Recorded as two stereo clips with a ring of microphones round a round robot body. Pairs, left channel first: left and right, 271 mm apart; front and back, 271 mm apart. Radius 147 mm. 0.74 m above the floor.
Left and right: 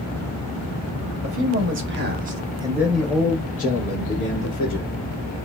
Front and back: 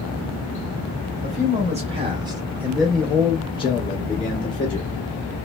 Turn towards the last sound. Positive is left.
turn(degrees=60)